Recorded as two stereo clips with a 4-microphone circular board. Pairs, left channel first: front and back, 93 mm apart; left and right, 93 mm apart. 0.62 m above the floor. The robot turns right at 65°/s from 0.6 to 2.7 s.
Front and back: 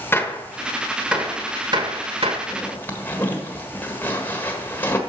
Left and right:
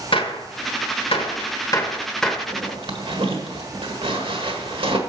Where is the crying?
No crying in this recording.